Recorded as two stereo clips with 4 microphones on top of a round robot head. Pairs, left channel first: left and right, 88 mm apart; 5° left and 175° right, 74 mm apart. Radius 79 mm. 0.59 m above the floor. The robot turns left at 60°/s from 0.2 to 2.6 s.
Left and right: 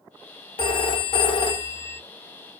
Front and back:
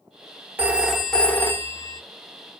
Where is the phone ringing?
115° left, 1.0 m; by 2.0 s 30° left, 1.0 m.